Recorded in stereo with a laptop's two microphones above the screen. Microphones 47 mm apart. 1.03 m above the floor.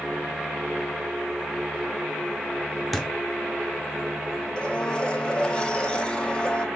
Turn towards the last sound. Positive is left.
turn(degrees=25)  # may be behind; listen again after turning